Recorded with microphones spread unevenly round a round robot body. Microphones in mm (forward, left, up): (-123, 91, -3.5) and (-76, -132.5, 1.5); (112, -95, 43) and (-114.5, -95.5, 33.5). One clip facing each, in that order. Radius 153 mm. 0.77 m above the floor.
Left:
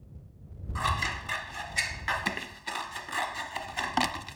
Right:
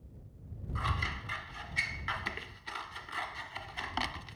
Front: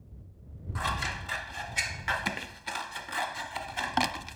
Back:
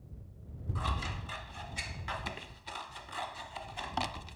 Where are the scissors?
45° left.